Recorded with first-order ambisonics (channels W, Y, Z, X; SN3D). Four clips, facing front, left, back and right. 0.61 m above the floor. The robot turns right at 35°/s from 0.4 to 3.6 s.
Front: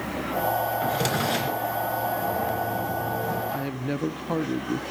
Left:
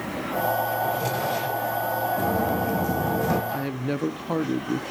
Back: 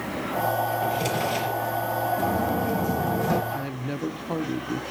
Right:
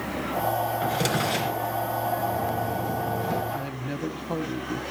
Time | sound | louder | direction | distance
0.8 | a drawer | even, even | 55° right | 2.5 m
2.2 | footsteps | left 3 dB, back 2 dB | 120° left | 2.5 m
3.5 | a woman speaking | left 4 dB, front 2 dB | 65° left | 0.6 m